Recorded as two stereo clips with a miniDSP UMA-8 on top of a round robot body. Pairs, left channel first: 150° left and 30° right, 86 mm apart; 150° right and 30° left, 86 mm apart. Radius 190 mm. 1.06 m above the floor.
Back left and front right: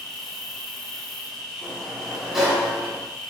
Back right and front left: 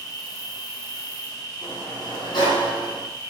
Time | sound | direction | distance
0.0 | an insect | 125° right | 1.1 m
1.6 | a sliding door | 115° right | 0.9 m